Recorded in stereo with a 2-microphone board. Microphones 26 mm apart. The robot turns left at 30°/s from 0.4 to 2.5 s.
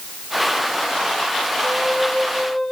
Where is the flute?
10° left (ahead or behind), 2.5 m; by 2.7 s 35° left (ahead or behind), 2.5 m.